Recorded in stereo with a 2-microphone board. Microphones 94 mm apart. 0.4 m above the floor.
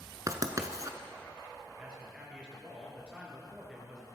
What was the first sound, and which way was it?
Writing, 40° right (ahead or behind).